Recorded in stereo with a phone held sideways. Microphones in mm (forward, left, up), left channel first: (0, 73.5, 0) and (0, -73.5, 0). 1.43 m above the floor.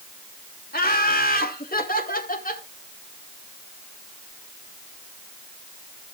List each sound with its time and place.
0.7 s laughter: 85° left, 2.0 m; by 2.6 s 60° left (ahead or behind), 2.5 m